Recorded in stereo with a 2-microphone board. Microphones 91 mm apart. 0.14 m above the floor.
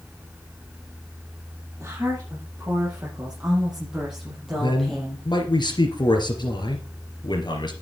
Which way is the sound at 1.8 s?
20° right (ahead or behind).